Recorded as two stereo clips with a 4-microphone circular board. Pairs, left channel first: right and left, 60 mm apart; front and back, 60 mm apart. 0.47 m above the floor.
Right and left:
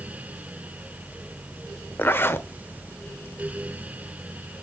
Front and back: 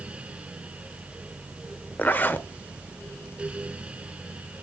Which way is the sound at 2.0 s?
50° right.